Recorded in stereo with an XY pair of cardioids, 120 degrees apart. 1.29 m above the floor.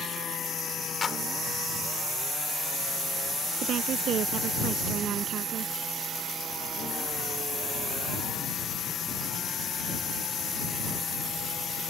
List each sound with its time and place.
1.0 s a clap: 25° left
3.6 s a woman speaking: 55° right